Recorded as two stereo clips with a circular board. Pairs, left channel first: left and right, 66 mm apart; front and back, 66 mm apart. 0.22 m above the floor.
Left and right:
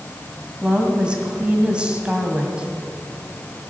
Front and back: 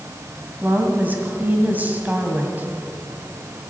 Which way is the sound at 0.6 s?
150° right.